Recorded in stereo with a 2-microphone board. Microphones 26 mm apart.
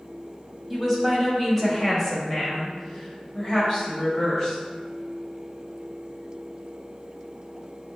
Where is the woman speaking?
Centre (ahead or behind), 1.6 m; by 4.6 s 15° left (ahead or behind), 1.5 m.